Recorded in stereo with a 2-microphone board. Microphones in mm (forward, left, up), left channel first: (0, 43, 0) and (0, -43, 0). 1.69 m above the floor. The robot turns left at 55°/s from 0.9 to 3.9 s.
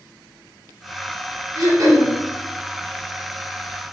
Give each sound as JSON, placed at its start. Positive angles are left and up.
{"t": 1.6, "sound": "throat clearing", "side_deg": -55, "distance_m": 1.2}